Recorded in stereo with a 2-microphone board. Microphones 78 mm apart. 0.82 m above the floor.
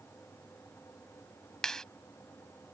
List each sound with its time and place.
1.6 s a clap: 5° left (ahead or behind)